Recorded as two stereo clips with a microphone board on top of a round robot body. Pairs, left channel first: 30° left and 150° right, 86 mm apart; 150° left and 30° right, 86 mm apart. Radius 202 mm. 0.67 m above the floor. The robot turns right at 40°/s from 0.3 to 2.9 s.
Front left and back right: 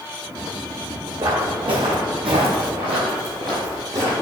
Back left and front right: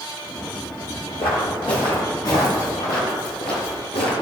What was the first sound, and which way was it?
Footsteps, 165° left.